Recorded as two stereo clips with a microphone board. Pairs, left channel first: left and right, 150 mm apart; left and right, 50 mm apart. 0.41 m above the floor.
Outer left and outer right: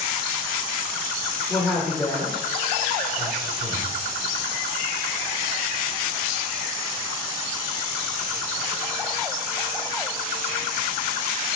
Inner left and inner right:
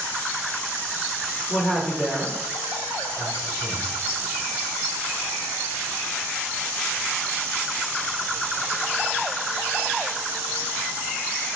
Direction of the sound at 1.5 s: Centre (ahead or behind).